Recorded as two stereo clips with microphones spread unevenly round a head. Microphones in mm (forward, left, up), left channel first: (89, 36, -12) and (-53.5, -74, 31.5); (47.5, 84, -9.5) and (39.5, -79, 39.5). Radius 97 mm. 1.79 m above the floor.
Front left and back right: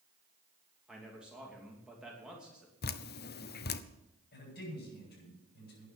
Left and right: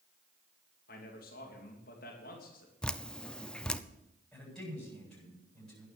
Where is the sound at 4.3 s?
Straight ahead, 8.5 m.